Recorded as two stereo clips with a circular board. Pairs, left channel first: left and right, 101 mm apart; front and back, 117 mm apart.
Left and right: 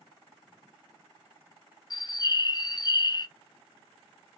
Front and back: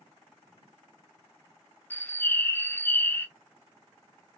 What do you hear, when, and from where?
1.9 s a bird: 65° left, 0.5 m